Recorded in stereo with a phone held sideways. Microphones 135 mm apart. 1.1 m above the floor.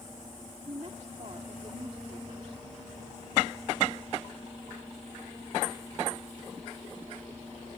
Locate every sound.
0.7 s a woman speaking: 50° right (ahead or behind)